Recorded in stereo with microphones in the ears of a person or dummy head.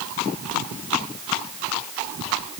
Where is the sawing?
I don't hear sawing.